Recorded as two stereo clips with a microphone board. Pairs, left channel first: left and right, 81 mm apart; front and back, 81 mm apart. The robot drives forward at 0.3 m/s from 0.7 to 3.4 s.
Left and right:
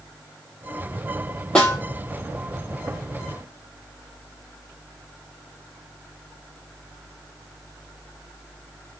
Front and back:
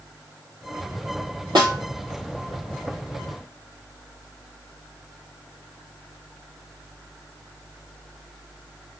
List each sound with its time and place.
1.6 s a snare drum: 165° left, 0.7 m; by 1.8 s 170° left, 0.8 m